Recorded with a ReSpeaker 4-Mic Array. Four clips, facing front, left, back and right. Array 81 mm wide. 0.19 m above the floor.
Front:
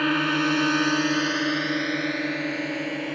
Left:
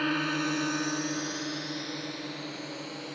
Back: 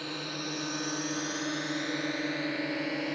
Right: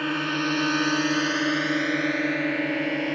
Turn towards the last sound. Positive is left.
turn(degrees=-85)